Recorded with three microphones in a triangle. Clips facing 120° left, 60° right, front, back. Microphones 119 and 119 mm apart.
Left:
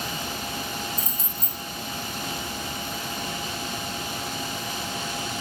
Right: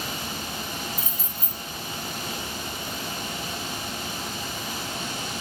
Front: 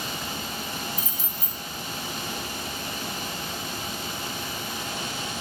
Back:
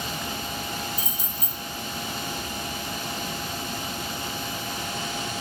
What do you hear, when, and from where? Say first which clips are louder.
1.0 s keys jangling: left 1 dB, back 1 dB; 140° right, 1.0 m